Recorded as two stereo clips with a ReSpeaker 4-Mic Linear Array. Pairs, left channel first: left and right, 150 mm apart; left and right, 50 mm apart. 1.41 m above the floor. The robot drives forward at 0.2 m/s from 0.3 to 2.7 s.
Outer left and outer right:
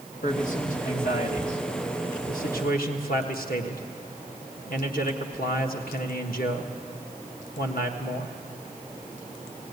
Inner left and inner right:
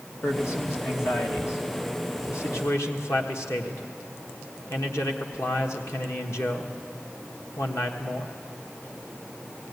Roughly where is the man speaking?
Left.